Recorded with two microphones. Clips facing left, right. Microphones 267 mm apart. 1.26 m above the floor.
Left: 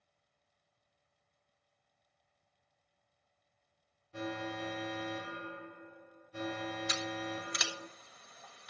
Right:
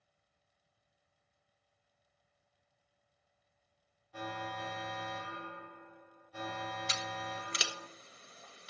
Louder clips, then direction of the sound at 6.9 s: Left 5 dB; 30° right (ahead or behind).